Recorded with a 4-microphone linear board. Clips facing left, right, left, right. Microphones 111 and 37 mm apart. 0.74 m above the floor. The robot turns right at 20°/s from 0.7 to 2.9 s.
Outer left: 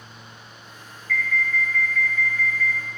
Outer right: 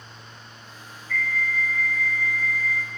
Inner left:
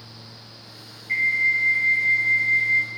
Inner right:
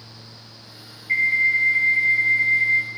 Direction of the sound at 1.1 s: 155° right.